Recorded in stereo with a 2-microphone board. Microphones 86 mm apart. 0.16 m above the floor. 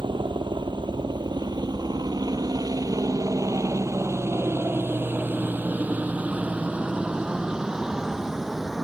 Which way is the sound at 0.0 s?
70° right (ahead or behind).